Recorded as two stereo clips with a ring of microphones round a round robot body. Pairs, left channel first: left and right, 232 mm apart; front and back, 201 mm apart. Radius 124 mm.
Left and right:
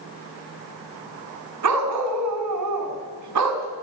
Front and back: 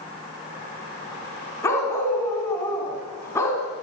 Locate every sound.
1.6 s a dog barking: 80° right, 2.5 m